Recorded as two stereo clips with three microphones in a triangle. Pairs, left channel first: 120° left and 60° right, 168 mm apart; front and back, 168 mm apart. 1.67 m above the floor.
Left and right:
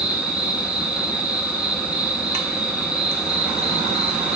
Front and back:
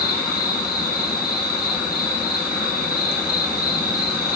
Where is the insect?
25° left, 2.5 m.